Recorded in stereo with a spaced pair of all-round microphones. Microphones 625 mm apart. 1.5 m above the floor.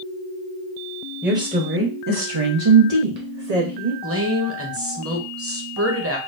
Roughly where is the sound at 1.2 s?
Centre.